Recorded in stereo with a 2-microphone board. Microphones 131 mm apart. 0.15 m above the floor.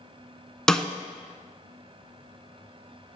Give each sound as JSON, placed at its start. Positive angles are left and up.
{"t": 0.7, "sound": "a snare drum", "side_deg": 5, "distance_m": 0.5}